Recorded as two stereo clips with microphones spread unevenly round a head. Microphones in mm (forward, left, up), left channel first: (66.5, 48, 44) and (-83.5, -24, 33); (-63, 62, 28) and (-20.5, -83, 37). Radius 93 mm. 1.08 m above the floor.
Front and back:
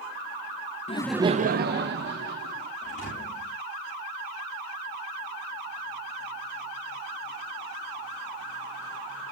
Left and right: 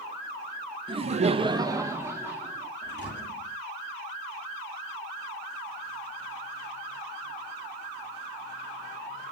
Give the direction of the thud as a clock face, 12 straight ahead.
10 o'clock.